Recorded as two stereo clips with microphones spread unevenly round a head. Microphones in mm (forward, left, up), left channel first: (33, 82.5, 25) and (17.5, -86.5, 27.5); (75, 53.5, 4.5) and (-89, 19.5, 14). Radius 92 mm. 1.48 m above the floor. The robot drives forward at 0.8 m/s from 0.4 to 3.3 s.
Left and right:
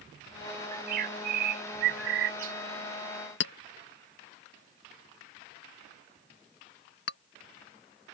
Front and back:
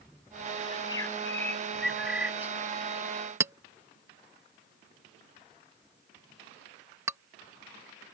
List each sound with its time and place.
0.7 s a bird: 60° right; by 2.5 s 95° right
3.4 s a clink: 120° left